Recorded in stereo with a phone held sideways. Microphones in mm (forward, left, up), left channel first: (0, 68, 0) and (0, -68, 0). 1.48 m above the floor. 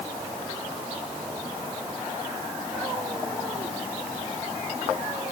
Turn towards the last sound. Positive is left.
No sound to turn to.